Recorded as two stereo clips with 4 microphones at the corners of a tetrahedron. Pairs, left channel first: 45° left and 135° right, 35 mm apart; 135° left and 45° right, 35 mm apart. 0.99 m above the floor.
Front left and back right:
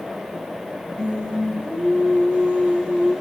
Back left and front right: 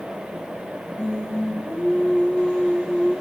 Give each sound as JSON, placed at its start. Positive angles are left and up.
{"t": 1.0, "sound": "singing", "azimuth_deg": 175, "distance_m": 6.0}